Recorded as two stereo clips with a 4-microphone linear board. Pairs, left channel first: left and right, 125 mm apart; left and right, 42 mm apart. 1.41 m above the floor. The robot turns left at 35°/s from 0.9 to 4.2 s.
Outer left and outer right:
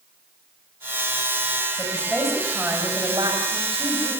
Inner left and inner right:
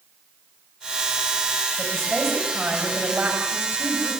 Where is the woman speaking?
20° left, 7.5 m; by 4.1 s 60° right, 7.5 m.